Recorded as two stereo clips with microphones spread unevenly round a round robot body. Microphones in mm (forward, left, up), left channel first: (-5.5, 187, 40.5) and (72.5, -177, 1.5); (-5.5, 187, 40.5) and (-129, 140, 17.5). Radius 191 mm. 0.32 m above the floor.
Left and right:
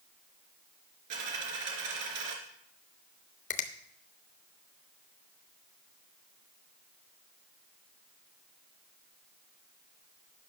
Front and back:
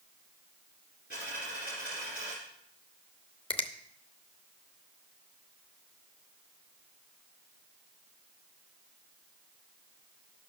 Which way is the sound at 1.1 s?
40° right.